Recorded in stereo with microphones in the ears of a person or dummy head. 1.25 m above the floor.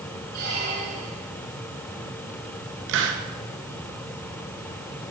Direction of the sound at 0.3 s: 60° right (ahead or behind).